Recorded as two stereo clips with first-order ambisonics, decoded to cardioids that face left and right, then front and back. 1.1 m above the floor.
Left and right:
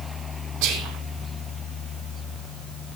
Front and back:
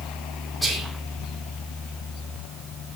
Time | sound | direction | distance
0.6 | whispering | 80° right | 3.5 m